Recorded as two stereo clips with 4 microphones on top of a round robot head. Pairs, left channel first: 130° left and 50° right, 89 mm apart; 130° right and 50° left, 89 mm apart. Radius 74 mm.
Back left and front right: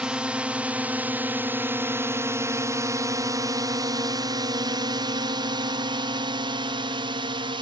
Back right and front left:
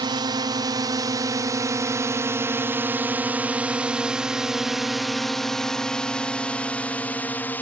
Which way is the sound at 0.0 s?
30° left.